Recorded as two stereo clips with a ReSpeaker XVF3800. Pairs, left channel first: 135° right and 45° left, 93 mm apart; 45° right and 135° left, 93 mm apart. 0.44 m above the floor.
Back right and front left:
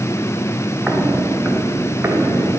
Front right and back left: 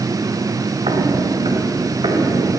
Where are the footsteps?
130° left, 2.5 m; by 2.6 s 105° left, 3.5 m.